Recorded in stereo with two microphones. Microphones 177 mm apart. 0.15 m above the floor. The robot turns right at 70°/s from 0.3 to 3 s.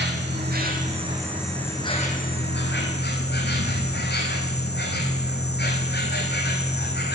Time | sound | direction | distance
0.0 | an insect | 80° right | 1.7 m